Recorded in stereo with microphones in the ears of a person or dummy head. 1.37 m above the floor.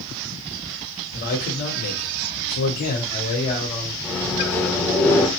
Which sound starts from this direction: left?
A man speaking, at 1.1 s.